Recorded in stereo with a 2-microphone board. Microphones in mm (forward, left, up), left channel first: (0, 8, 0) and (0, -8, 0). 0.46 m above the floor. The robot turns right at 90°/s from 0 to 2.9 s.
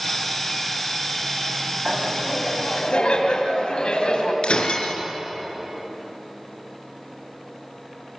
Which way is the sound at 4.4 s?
80° left.